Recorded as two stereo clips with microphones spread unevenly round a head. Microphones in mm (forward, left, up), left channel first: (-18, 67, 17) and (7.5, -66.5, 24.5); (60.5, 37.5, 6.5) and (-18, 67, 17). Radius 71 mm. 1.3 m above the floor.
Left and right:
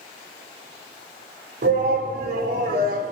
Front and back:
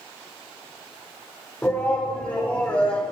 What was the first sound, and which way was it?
A shout, 100° right.